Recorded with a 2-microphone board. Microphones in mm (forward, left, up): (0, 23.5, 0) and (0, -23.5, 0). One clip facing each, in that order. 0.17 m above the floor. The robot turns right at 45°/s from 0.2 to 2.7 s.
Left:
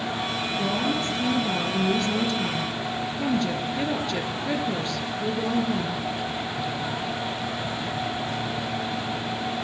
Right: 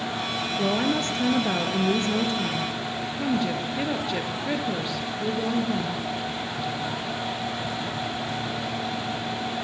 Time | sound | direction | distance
0.6 | a woman speaking | 105° right | 2.5 m